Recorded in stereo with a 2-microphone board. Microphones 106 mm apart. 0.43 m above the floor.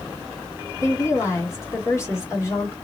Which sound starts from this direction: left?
A woman speaking, at 0.8 s.